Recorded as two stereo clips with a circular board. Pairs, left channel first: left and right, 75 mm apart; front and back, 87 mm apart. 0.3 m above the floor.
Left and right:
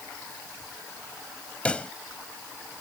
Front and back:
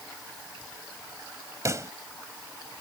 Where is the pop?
155° left.